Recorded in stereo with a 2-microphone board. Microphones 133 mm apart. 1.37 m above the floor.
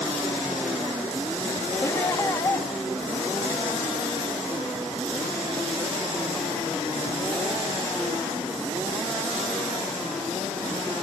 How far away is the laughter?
About 2 m.